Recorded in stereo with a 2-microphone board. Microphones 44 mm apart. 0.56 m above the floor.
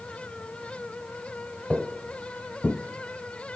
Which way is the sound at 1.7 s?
20° right (ahead or behind).